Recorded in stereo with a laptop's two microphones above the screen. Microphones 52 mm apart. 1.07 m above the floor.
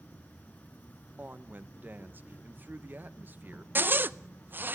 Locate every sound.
0.0 s an insect: 30° left (ahead or behind), 3 m
1.2 s a woman speaking: 35° right (ahead or behind), 0.9 m
3.8 s a zipper: 40° right (ahead or behind), 0.6 m